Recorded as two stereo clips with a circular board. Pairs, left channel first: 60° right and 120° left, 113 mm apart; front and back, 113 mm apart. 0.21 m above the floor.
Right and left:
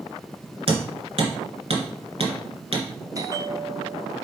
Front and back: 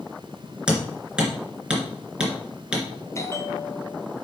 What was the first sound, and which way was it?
Hammering, 100° left.